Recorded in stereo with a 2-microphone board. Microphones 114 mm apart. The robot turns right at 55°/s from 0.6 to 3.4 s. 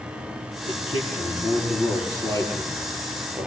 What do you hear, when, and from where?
0.7 s a man speaking: 60° left, 8.5 m; by 3.5 s 150° right, 8.5 m